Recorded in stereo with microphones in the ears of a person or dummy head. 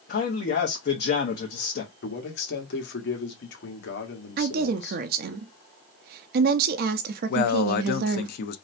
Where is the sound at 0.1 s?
50° left (ahead or behind), 0.7 m.